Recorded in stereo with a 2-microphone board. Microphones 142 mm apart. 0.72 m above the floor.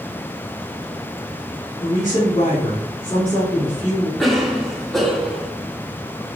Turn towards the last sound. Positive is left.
turn(degrees=0)  # may be behind; listen again after turning